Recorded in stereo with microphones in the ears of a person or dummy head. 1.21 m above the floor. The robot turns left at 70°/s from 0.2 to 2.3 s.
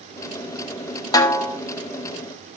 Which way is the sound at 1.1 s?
20° left.